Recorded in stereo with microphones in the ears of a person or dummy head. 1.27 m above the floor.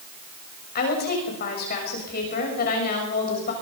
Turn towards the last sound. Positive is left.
turn(degrees=45)  # may be behind; listen again after turning